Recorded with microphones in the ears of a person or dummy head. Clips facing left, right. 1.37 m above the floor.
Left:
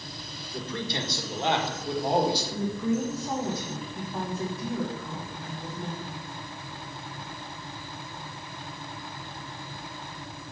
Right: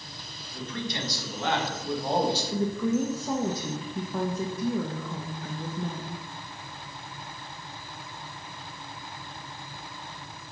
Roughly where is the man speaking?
Left.